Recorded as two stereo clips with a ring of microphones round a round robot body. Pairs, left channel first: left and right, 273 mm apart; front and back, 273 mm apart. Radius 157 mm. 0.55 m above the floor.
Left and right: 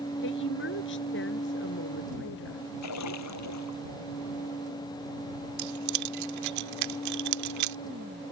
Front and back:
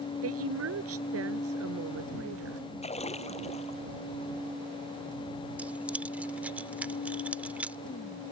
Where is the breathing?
No breathing in this recording.